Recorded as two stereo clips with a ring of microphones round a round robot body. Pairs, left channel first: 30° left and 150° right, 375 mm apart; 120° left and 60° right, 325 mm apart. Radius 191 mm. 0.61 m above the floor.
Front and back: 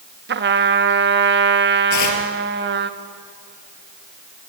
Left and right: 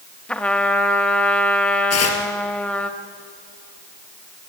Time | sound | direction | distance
0.3 | a trumpet | 160° right | 1.0 m
1.9 | tearing paper | 75° left | 3 m